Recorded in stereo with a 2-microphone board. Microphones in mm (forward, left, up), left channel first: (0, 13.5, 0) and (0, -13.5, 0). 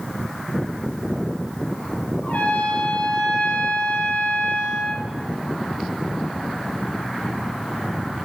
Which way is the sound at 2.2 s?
70° left (ahead or behind).